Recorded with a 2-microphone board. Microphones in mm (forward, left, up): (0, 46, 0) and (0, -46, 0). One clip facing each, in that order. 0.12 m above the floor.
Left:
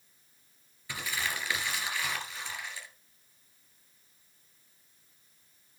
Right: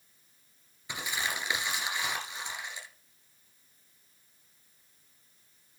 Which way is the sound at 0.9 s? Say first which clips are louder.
Right 1 dB; 20° right (ahead or behind).